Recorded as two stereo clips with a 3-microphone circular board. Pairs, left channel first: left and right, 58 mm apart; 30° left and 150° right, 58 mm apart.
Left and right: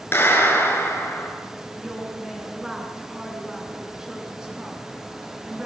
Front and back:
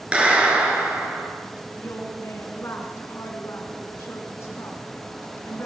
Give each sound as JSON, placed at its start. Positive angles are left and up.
{"t": 0.1, "sound": "a clap", "azimuth_deg": 140, "distance_m": 5.5}
{"t": 1.7, "sound": "a woman speaking", "azimuth_deg": -10, "distance_m": 5.5}